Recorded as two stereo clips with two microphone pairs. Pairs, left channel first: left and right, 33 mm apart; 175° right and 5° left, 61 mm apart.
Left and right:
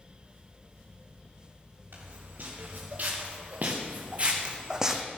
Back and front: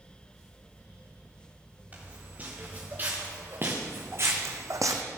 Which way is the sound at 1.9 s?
60° right.